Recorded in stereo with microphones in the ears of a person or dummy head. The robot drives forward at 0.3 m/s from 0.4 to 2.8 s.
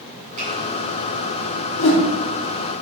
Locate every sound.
0.4 s a finger snap: 40° right (ahead or behind), 1.9 m
1.8 s a whoosh: 60° left (ahead or behind), 1.1 m; by 2.0 s 65° left (ahead or behind), 1.1 m